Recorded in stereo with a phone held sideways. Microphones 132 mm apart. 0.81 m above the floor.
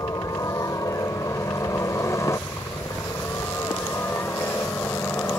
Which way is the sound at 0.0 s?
25° left (ahead or behind).